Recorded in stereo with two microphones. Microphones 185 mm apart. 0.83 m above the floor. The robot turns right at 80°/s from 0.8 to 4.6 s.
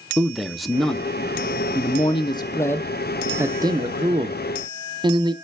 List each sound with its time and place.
0.2 s a man speaking: centre (ahead or behind), 0.7 m; by 5.3 s 25° right (ahead or behind), 0.7 m